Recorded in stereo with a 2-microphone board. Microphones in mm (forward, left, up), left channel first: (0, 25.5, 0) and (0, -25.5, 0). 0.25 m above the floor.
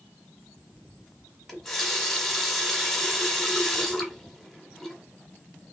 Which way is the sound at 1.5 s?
5° left (ahead or behind).